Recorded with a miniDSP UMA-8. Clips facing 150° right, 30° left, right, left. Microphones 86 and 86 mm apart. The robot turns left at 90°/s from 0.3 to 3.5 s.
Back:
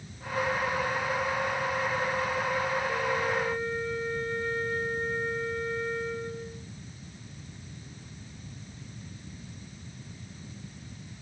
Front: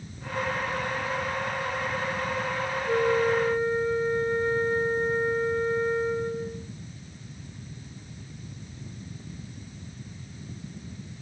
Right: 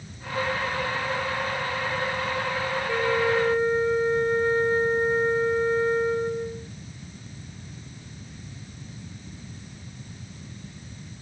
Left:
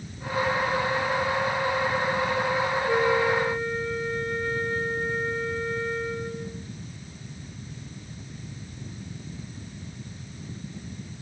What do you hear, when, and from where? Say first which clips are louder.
2.9 s a flute: front 6 dB, even; 25° left; by 6.7 s 30° right